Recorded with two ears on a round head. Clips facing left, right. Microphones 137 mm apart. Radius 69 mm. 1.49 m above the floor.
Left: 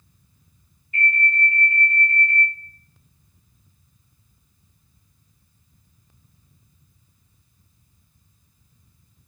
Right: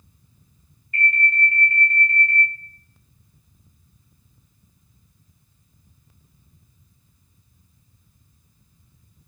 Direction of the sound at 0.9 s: 45° right (ahead or behind).